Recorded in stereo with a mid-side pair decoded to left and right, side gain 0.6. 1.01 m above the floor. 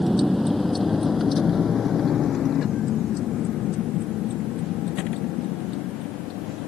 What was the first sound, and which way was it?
A vehicle, 5° right.